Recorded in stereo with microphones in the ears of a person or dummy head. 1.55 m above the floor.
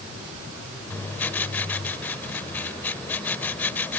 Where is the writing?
10° left (ahead or behind).